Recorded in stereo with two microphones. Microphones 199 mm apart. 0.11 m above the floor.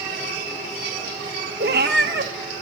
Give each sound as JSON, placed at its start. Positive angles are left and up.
{"t": 1.6, "sound": "a cat meowing", "side_deg": -55, "distance_m": 0.8}